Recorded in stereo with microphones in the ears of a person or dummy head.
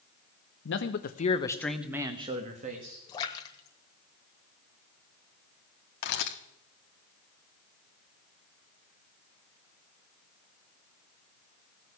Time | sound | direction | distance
0.7 | a man speaking | 60° left (ahead or behind) | 1.5 m
3.1 | a splash | 25° left (ahead or behind) | 1.2 m
6.0 | a camera shutter | 50° left (ahead or behind) | 1.0 m